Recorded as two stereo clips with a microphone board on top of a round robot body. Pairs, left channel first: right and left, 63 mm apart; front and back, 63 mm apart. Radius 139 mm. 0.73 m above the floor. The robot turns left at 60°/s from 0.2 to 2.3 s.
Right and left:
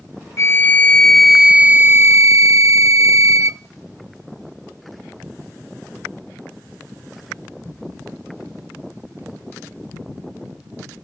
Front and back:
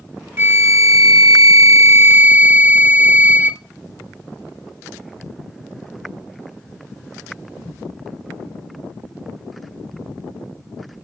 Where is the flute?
130° right, 1.1 m; by 3.6 s 115° left, 1.1 m.